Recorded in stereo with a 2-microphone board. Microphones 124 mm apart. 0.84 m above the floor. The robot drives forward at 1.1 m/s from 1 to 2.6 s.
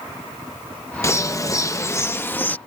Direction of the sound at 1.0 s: 25° left (ahead or behind).